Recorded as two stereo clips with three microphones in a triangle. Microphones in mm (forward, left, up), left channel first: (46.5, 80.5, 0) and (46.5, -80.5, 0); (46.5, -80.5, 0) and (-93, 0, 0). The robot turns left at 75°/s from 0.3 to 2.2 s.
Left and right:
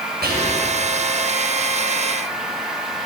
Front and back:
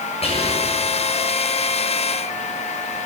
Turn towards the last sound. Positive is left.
turn(degrees=135)